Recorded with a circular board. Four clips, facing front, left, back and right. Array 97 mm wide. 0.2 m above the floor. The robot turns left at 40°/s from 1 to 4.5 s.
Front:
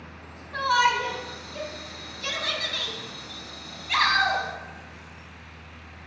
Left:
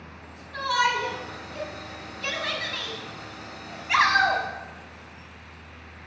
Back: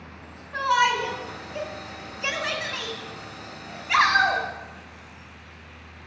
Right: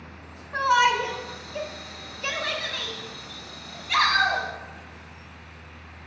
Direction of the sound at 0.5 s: 120° right.